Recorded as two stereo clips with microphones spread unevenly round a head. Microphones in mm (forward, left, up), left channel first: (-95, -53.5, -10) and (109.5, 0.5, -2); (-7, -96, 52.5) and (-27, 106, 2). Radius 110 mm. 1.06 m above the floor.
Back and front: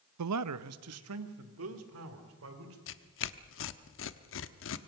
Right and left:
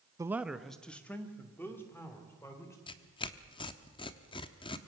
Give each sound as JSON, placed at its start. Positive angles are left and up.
{"t": 0.2, "sound": "a man speaking", "azimuth_deg": 20, "distance_m": 0.5}
{"t": 2.9, "sound": "tearing paper", "azimuth_deg": -145, "distance_m": 0.9}